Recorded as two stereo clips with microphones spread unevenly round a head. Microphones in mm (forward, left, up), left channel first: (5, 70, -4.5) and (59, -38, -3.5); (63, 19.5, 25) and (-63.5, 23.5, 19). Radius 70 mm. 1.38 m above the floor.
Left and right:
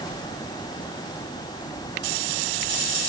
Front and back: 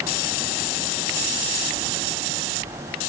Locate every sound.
Only background noise.